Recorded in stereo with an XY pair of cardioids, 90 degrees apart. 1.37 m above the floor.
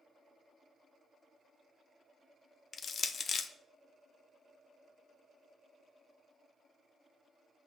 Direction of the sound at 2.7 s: 55° left.